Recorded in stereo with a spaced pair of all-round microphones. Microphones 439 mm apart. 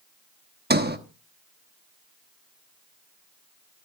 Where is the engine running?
I don't hear an engine running.